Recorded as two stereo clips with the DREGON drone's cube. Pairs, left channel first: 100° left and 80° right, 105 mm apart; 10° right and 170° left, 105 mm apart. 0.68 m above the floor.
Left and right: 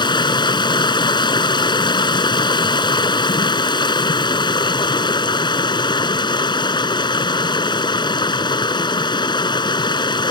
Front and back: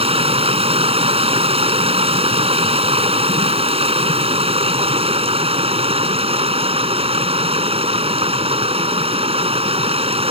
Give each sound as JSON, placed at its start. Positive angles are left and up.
{"t": 0.0, "sound": "running water", "azimuth_deg": 145}